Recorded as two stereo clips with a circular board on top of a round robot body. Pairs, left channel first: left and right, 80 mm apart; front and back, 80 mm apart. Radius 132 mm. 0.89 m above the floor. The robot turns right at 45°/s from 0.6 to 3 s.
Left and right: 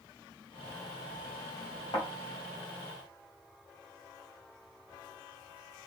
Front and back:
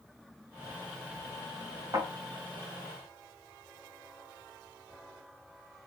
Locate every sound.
1.9 s a thud: 125° left, 2.5 m; by 2.1 s 135° left, 2.5 m